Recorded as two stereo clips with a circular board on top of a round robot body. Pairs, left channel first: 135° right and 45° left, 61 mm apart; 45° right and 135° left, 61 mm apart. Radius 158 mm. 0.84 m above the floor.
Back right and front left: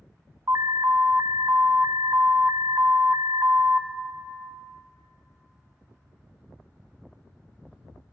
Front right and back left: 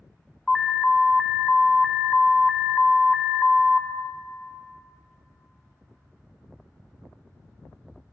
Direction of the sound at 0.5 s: 35° left.